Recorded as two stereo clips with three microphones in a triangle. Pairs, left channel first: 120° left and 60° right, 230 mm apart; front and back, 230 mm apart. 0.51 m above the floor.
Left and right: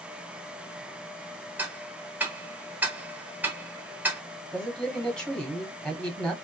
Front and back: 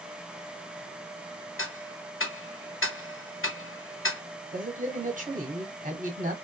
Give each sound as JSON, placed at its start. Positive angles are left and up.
{"t": 1.6, "sound": "ticking", "azimuth_deg": 20, "distance_m": 0.7}
{"t": 4.5, "sound": "a man speaking", "azimuth_deg": -155, "distance_m": 1.2}